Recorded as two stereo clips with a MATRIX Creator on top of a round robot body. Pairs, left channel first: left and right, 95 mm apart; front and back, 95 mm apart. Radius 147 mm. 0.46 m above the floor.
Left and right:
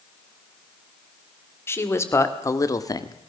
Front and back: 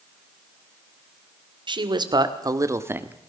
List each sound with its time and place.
1.7 s a man speaking: 150° left, 2.5 m; by 3.2 s 110° left, 1.6 m